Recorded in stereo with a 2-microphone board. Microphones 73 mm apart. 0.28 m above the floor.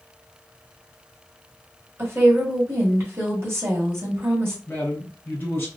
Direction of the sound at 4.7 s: 30° left (ahead or behind).